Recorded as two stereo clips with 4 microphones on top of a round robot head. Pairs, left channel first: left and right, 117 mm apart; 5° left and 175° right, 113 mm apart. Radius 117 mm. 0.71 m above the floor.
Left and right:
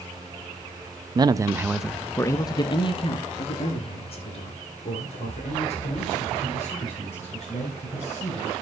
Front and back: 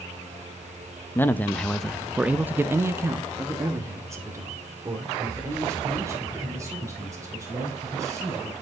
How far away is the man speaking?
About 0.8 m.